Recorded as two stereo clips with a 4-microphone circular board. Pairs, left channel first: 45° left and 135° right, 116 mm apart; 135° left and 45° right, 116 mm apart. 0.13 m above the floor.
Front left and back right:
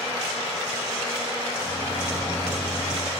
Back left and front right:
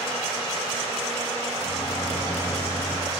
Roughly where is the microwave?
Left.